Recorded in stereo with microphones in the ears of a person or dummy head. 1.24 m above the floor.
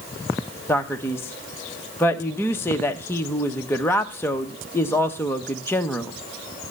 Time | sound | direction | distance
0.7 | a man speaking | 10° left (ahead or behind) | 1.0 m